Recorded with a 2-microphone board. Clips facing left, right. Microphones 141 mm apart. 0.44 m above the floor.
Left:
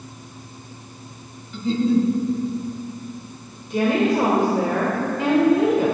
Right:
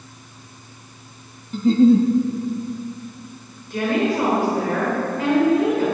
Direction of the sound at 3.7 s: 20° left (ahead or behind).